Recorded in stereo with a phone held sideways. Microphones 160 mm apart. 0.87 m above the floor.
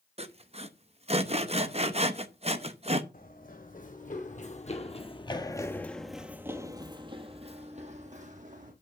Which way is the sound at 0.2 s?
40° right (ahead or behind).